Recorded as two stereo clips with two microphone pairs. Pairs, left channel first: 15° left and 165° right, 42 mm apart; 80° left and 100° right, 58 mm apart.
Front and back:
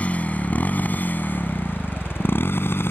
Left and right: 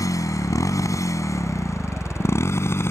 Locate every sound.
0.0 s a motorcycle: 70° left; by 2.9 s 35° left